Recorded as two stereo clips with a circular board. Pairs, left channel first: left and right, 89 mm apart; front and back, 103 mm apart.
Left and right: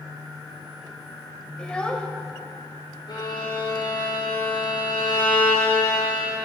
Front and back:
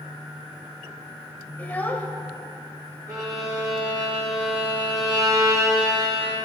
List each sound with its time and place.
1.6 s a child speaking: 35° left, 0.9 m
3.1 s a violin: 125° left, 4.5 m